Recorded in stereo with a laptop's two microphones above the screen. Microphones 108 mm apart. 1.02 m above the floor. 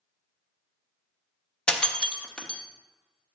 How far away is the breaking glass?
About 0.5 m.